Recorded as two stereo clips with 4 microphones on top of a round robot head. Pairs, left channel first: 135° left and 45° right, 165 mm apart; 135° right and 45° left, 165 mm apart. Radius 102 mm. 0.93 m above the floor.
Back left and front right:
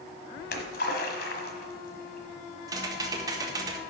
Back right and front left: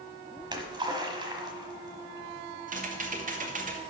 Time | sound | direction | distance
0.4 | a splash | 105° left | 1.3 m
2.7 | typing on a keyboard | 20° left | 1.5 m